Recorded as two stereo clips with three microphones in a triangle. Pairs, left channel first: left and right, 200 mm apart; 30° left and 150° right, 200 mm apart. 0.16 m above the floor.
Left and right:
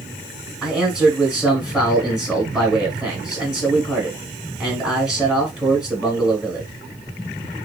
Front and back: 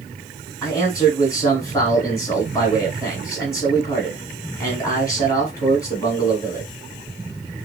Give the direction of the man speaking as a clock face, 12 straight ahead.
12 o'clock.